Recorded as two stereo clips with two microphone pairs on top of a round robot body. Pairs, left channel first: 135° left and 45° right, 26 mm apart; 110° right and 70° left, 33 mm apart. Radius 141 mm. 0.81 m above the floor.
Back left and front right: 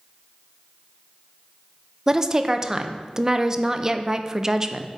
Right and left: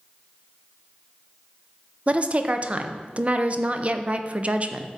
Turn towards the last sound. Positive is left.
turn(degrees=20)